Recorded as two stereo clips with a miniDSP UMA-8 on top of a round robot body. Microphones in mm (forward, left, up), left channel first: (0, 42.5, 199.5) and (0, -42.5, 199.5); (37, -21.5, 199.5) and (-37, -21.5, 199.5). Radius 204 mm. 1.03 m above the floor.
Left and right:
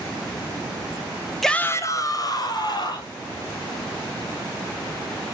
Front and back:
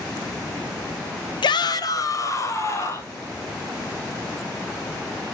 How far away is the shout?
About 0.5 m.